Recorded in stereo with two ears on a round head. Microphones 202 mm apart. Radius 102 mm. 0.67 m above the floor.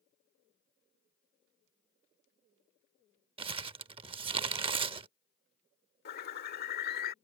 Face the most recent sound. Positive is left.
turn(degrees=45)  # may be behind; listen again after turning